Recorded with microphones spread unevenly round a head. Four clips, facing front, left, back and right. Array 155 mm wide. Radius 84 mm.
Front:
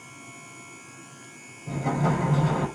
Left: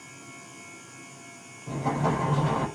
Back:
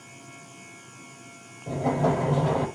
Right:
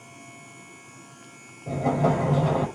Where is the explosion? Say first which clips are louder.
Right 4 dB, back 2 dB; 125° right, 6 m.